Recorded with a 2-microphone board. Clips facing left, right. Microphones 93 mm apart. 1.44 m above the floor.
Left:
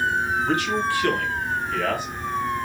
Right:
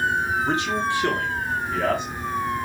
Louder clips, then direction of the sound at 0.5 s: Left 1 dB; 20° right (ahead or behind).